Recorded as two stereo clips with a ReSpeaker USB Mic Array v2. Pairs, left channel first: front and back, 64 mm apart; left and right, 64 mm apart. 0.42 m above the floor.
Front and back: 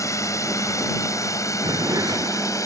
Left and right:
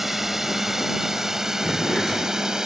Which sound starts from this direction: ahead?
A drone, at 0.0 s.